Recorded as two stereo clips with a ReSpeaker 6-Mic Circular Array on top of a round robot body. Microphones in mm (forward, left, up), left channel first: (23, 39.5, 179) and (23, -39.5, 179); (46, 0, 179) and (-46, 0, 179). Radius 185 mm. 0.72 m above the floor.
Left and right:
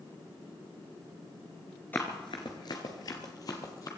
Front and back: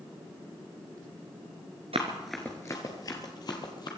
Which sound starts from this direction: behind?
Running footsteps, at 1.9 s.